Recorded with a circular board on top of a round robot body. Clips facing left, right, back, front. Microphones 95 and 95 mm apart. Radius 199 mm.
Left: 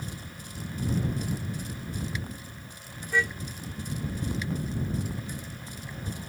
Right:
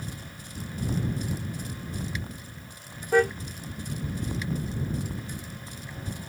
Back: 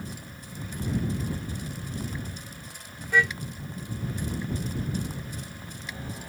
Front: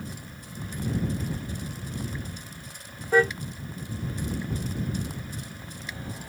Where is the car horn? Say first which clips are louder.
Right 7 dB, front 4 dB; 50° right.